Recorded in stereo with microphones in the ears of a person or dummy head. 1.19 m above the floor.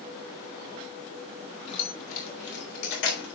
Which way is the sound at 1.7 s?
35° left (ahead or behind).